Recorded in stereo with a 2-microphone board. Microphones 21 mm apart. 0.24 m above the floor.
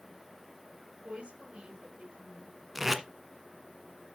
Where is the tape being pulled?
15° right (ahead or behind), 1.0 m.